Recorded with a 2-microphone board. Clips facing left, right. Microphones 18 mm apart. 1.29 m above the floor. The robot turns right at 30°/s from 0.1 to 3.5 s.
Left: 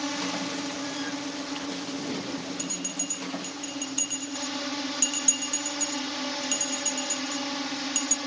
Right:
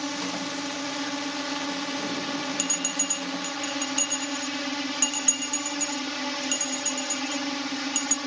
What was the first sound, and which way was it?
A drone, 175° right.